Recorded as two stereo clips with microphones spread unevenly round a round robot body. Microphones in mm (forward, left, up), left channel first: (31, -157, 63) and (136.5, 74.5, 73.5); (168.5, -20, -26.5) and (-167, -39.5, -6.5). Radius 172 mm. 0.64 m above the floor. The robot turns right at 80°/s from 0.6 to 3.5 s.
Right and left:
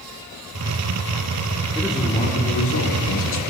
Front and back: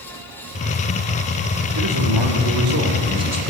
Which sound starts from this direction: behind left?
A man speaking, at 1.8 s.